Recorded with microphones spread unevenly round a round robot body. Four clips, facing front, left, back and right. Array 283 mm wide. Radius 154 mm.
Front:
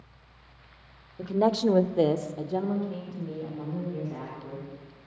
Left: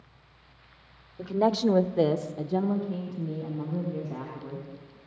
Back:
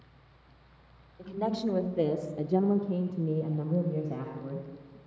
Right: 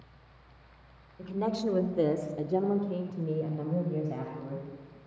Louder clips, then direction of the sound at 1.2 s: Left 7 dB, front 7 dB; 35° left.